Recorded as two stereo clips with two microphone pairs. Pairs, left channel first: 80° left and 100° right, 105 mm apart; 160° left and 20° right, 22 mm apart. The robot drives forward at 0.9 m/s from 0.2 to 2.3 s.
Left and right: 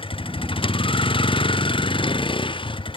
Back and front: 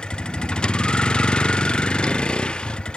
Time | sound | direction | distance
0.0 | a vehicle | 110° left | ?